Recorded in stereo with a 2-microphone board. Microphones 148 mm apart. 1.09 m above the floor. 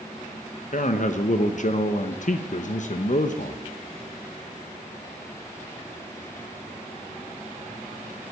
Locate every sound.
0.7 s a man speaking: 55° left (ahead or behind), 0.8 m